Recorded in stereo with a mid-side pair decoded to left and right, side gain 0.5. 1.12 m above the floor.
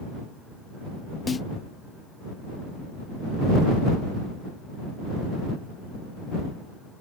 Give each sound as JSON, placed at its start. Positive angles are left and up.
{"t": 1.3, "sound": "a snare drum", "azimuth_deg": 30}